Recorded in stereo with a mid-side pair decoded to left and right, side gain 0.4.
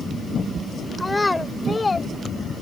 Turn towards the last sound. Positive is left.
turn(degrees=25)